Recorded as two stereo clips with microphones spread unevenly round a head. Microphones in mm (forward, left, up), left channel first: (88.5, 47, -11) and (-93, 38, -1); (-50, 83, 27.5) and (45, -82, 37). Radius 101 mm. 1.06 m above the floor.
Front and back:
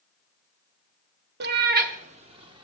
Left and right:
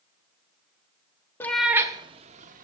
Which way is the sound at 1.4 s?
160° right.